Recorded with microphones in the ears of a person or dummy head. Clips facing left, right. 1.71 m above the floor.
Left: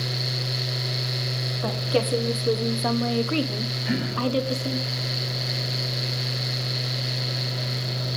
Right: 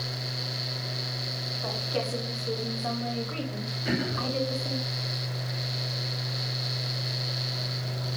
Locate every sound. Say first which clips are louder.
1.6 s a woman speaking: left 7 dB; 65° left (ahead or behind), 1.8 m; by 4.8 s 50° left (ahead or behind), 1.7 m
3.9 s throat clearing: left 4 dB; 40° right (ahead or behind), 7 m